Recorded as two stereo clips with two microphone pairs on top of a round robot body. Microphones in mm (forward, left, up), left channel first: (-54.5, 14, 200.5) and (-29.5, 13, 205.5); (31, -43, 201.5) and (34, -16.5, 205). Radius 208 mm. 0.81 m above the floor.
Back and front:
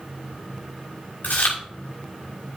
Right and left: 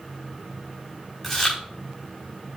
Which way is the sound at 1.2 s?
175° left.